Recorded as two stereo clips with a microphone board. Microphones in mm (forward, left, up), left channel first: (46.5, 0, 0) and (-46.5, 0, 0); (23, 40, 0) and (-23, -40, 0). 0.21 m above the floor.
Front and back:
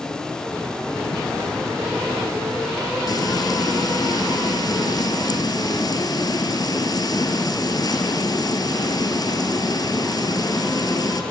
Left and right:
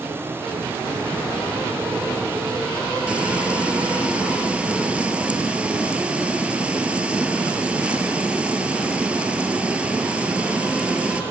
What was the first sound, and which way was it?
Frying, 45° right.